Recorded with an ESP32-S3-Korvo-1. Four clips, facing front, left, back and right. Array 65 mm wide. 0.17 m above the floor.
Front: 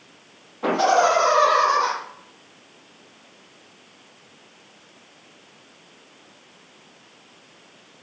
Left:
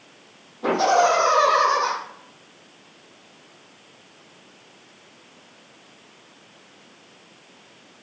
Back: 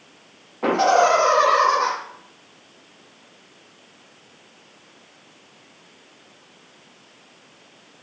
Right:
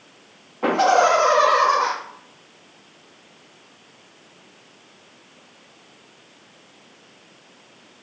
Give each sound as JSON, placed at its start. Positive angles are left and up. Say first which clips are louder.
{"t": 0.6, "sound": "laughter", "louder": "right 2 dB, back 1 dB", "azimuth_deg": -125, "distance_m": 4.5}